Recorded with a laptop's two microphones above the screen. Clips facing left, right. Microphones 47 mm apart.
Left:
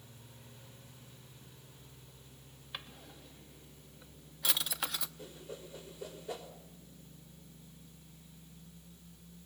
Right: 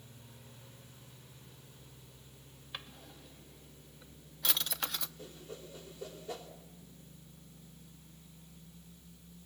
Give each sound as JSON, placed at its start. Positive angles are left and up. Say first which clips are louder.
{"t": 2.7, "sound": "a drawer", "louder": "even", "side_deg": 5, "distance_m": 0.7}
{"t": 5.2, "sound": "a whoosh", "louder": "left 1 dB", "side_deg": 15, "distance_m": 3.0}